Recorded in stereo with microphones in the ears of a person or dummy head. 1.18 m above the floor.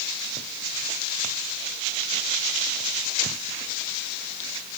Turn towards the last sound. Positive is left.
No sound to turn to.